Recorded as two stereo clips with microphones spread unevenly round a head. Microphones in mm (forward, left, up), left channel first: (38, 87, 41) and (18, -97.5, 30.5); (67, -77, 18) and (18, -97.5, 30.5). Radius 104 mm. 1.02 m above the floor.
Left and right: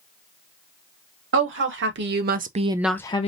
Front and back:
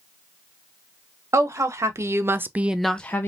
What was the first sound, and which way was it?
A woman speaking, 115° right.